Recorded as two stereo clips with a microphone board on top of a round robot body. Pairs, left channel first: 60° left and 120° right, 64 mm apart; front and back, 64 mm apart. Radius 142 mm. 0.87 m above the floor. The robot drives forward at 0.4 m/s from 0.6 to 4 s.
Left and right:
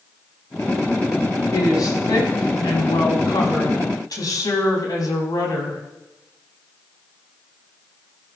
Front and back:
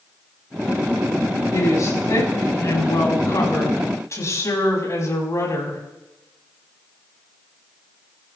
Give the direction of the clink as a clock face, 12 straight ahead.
No clink in this recording.